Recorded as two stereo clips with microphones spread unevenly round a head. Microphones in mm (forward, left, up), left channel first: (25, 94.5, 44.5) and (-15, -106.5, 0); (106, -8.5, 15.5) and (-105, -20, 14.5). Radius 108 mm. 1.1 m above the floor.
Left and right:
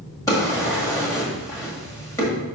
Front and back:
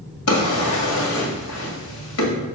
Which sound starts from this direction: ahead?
A drawer, at 0.3 s.